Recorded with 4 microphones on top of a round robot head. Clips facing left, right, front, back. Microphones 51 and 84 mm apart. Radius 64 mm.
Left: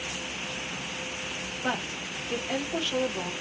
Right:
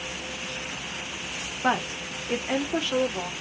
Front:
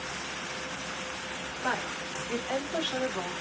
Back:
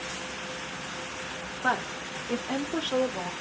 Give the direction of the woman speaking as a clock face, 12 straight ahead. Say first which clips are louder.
Right 6 dB, back 4 dB; 4 o'clock.